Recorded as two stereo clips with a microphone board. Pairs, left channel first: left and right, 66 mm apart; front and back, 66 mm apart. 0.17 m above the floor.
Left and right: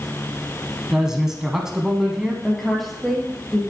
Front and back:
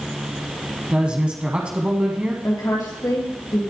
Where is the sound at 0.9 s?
155° right, 1.0 m.